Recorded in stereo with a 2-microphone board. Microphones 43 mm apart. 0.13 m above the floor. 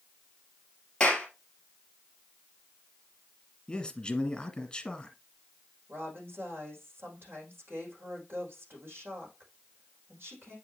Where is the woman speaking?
65° right (ahead or behind), 5 m.